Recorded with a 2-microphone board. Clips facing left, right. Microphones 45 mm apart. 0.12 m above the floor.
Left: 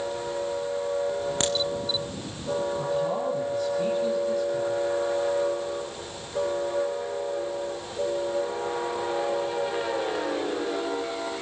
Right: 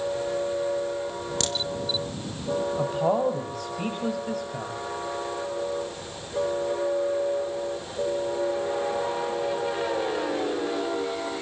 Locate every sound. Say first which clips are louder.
1.4 s a crack: left 2 dB; 30° left (ahead or behind), 3 m
2.8 s a man speaking: right 3 dB; 55° right (ahead or behind), 5.5 m